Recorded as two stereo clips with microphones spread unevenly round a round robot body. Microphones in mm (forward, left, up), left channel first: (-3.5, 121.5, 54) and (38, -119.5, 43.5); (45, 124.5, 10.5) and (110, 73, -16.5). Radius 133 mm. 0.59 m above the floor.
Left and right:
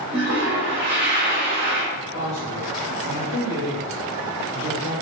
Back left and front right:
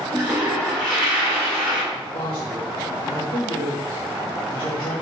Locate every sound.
0.1 s a toilet flushing: 55° right, 1.9 m
1.9 s a man speaking: 160° left, 1.3 m